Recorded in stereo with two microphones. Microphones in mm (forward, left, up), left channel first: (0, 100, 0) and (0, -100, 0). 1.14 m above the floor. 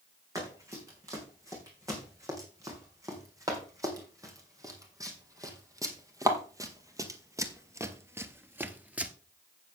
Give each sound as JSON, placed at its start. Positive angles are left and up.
{"t": 0.3, "sound": "running footsteps", "side_deg": -15, "distance_m": 5.0}